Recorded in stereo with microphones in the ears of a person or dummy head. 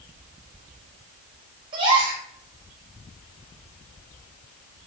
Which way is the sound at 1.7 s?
30° right (ahead or behind).